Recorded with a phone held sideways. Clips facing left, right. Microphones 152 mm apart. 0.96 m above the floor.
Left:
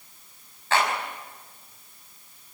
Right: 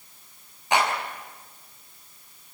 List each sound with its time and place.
0.7 s a clap: 15° right (ahead or behind), 6 m